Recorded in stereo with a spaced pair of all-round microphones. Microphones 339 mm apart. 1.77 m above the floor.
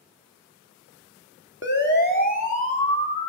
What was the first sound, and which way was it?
A siren, 35° left (ahead or behind).